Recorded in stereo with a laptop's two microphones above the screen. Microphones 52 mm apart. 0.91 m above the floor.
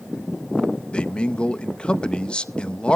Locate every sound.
0.9 s a man speaking: 20° left (ahead or behind), 0.5 m